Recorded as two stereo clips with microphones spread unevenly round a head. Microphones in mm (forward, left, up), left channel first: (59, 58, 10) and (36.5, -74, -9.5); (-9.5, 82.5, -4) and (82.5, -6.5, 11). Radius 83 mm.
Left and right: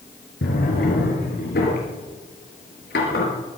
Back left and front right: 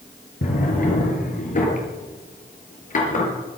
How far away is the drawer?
About 5 m.